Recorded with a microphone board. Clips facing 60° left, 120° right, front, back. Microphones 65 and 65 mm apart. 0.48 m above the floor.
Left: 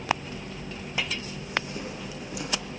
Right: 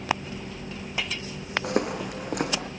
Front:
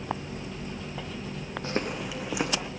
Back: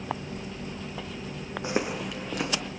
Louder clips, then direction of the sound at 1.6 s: Right 9 dB, back 2 dB; 110° right.